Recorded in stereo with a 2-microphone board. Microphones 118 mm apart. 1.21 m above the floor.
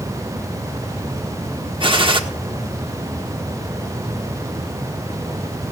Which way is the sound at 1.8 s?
50° right (ahead or behind).